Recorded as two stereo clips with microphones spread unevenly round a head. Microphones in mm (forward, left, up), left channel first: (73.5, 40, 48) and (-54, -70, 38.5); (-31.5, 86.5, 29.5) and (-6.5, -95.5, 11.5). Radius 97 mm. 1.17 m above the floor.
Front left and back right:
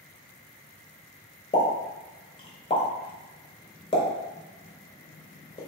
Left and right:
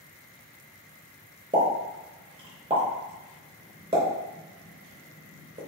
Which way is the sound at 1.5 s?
15° right.